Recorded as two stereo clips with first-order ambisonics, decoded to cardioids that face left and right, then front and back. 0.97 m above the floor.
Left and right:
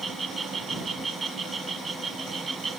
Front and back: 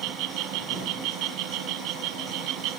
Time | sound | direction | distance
0.0 | an insect | 165° right | ?